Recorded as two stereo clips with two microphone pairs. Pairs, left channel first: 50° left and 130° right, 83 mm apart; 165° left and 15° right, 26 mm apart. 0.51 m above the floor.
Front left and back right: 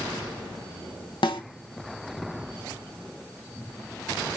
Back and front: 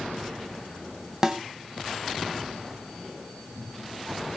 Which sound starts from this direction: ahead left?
A snare drum, at 1.2 s.